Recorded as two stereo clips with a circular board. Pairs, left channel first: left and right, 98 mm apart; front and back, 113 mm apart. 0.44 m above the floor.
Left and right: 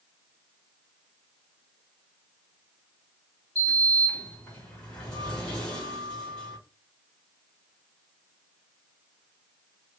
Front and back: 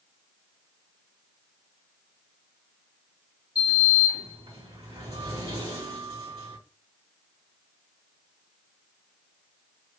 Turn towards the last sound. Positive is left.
turn(degrees=170)